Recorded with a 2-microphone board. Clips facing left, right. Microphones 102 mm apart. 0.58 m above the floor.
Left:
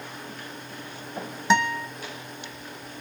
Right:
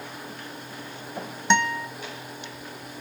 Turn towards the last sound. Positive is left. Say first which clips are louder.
# left 1 dB
turn(degrees=5)  # may be behind; listen again after turning